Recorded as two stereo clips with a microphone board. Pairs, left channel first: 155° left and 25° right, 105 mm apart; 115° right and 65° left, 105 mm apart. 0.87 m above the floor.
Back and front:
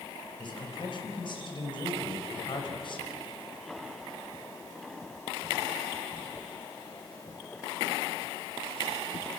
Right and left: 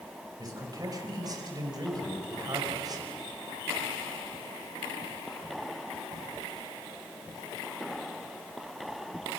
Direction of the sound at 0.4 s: 120° left.